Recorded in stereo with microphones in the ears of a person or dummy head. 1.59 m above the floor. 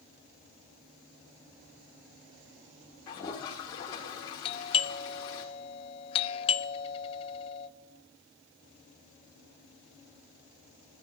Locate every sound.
3.1 s a toilet flushing: 15° left (ahead or behind), 1.2 m
4.5 s a doorbell: 25° left (ahead or behind), 0.8 m